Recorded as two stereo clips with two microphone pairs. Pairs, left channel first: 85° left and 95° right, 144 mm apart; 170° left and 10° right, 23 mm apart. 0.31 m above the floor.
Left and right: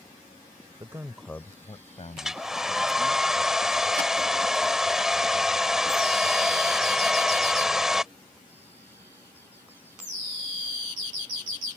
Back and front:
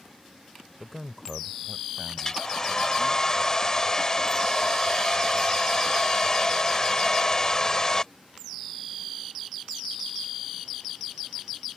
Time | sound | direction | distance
0.8 | a man speaking | 115° right | ?
2.2 | a hair dryer | 175° left | ?